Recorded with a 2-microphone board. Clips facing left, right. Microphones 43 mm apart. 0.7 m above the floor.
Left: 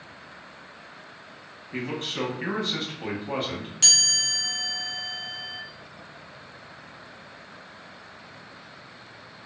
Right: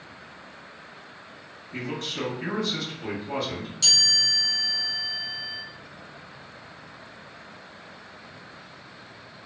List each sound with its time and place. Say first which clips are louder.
1.7 s a man speaking: left 1 dB; 30° left (ahead or behind), 0.9 m
3.8 s a chime: right 2 dB; 55° left (ahead or behind), 0.7 m